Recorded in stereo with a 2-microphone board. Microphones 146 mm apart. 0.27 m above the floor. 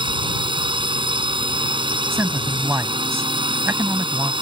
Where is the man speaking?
15° right (ahead or behind).